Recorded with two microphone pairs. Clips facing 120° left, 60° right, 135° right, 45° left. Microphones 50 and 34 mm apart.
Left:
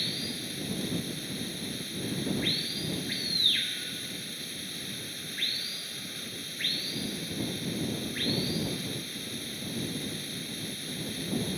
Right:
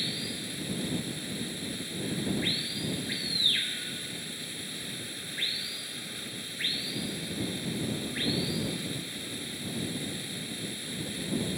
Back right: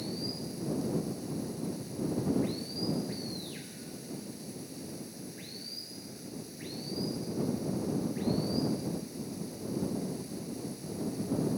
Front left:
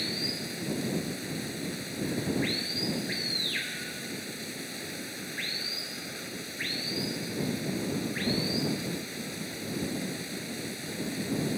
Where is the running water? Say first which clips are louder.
Even, front left 4 dB; 25° left.